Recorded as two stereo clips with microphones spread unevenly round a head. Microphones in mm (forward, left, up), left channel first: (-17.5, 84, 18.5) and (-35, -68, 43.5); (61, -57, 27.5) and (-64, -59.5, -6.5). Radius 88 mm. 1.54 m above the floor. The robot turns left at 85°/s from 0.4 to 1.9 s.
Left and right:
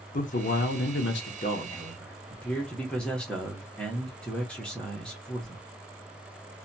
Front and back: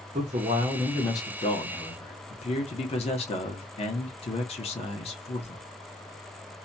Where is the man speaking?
120° left, 0.7 m; by 5.6 s 5° right, 0.7 m.